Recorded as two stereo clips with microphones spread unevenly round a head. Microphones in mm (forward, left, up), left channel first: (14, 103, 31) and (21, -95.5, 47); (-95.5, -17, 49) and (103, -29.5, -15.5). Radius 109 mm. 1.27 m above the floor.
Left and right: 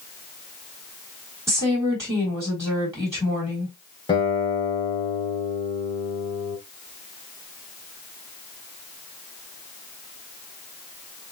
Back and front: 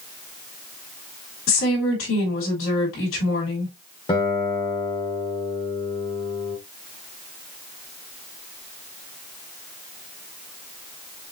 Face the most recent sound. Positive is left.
turn(degrees=155)